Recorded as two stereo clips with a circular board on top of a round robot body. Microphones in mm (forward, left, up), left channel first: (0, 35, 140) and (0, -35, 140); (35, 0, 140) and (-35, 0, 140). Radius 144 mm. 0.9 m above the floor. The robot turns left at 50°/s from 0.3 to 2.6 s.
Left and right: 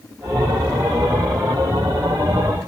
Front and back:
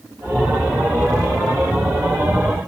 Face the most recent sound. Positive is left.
No sound to turn to.